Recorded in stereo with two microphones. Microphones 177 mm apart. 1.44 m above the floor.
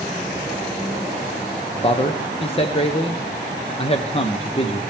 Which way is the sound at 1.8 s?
30° left (ahead or behind).